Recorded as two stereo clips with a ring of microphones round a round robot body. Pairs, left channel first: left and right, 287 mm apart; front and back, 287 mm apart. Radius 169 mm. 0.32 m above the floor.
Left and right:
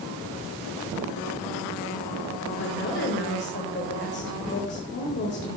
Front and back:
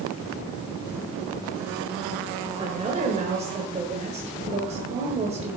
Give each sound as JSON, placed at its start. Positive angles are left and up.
{"t": 2.6, "sound": "a woman speaking", "azimuth_deg": 120, "distance_m": 1.6}